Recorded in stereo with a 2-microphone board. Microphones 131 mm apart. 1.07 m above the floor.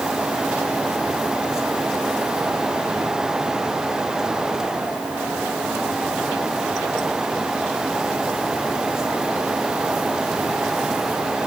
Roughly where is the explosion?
I don't hear an explosion.